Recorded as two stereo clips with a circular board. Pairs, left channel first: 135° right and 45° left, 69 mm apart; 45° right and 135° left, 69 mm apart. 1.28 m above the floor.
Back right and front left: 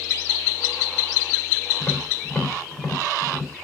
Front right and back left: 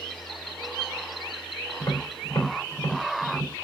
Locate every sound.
1.8 s tapping: 70° right, 3 m